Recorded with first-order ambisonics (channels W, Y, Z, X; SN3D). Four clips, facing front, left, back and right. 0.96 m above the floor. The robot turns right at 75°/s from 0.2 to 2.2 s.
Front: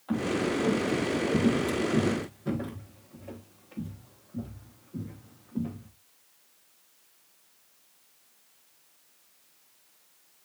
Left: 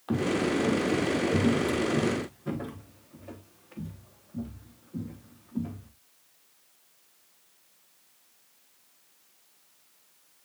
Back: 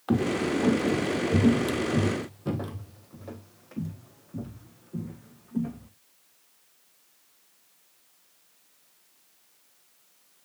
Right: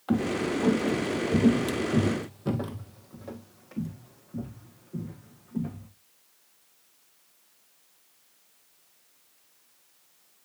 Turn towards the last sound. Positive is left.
turn(degrees=-140)